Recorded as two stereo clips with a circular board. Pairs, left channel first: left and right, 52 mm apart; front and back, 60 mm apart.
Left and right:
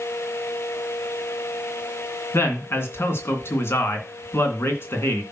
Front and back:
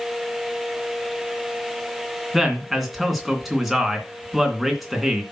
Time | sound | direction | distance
2.3 | a man speaking | 90° left | 2.5 m